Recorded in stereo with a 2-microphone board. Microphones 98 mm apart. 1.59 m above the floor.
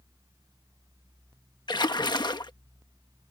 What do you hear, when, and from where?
1.7 s a splash: 50° left (ahead or behind)